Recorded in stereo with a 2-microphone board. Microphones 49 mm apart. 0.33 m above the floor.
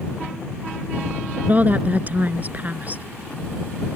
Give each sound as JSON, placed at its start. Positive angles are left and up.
{"t": 1.4, "sound": "a woman speaking", "side_deg": -35}